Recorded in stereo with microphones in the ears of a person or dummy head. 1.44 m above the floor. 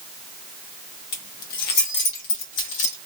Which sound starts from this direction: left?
Keys jangling, at 1.1 s.